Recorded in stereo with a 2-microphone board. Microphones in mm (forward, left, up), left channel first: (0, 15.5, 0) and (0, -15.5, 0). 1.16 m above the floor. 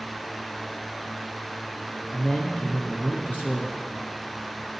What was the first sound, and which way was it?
A man speaking, 55° left (ahead or behind).